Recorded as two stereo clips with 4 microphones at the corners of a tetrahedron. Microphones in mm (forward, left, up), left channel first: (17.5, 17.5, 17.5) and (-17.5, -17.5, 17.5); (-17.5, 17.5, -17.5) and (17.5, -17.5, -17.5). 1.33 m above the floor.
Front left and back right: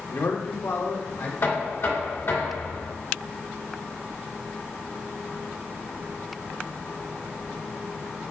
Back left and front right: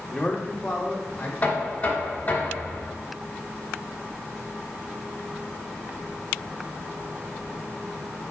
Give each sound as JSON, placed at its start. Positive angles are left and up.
{"t": 0.1, "sound": "a man speaking", "azimuth_deg": 60, "distance_m": 1.1}
{"t": 1.4, "sound": "knocking", "azimuth_deg": 75, "distance_m": 2.0}